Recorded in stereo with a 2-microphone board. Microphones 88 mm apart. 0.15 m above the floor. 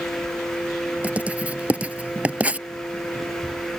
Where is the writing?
15° right (ahead or behind).